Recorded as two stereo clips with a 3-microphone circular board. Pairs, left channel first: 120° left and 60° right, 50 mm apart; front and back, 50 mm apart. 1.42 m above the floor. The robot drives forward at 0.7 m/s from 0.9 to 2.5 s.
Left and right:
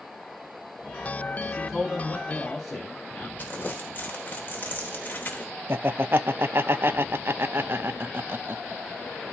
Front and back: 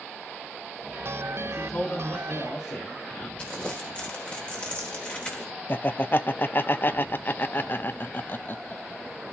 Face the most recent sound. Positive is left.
turn(degrees=-35)